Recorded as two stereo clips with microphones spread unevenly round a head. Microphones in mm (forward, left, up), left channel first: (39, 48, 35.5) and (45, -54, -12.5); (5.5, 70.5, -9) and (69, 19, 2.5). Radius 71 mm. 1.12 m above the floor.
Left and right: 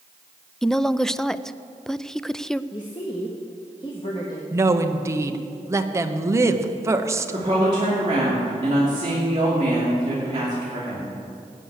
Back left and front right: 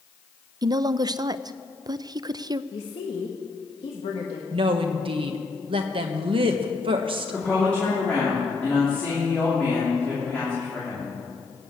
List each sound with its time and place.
0.6 s a woman speaking: straight ahead, 0.5 m
2.7 s a woman speaking: 155° left, 1.3 m
4.5 s a woman speaking: 45° right, 1.1 m
7.3 s a woman speaking: 140° right, 2.5 m